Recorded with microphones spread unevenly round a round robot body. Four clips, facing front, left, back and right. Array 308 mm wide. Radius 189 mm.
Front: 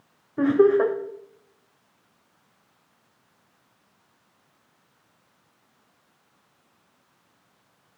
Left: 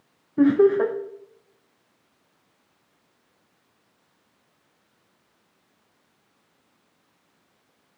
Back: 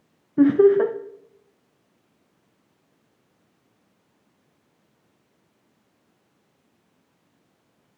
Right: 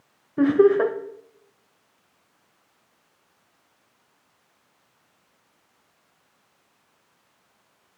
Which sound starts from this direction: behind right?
Laughter, at 0.4 s.